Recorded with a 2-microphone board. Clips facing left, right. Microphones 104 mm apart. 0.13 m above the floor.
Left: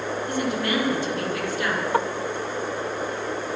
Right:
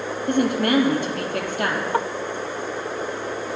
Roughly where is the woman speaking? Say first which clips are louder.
Right 7 dB; right.